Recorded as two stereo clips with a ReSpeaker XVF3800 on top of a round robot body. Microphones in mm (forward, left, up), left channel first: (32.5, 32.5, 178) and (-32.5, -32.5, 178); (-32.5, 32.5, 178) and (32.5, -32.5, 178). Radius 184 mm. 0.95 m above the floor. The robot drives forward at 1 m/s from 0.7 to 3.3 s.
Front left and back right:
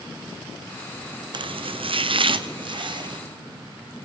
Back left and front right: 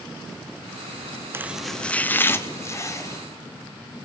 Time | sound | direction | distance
1.3 | chopping | 110° right | 0.6 m